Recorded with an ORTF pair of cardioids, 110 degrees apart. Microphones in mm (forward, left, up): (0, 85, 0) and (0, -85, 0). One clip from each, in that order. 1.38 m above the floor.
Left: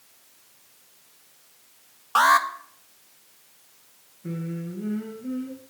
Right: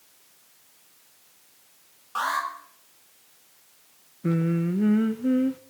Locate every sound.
2.1 s an alarm: 55° left, 1.4 m
4.2 s singing: 60° right, 0.9 m